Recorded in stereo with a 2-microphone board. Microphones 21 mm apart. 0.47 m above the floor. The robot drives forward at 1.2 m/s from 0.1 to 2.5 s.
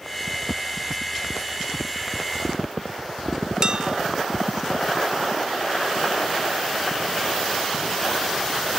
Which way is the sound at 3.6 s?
45° right (ahead or behind).